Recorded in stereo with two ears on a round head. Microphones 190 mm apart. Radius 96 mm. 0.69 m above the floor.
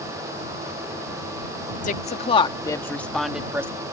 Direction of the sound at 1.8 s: 40° left (ahead or behind).